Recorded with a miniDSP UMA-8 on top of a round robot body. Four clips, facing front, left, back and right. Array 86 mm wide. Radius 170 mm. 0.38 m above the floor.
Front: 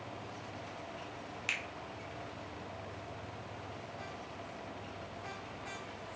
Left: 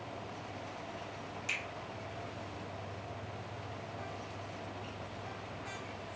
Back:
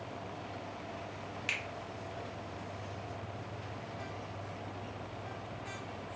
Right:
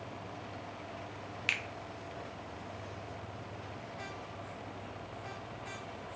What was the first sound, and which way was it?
A finger snap, 85° right.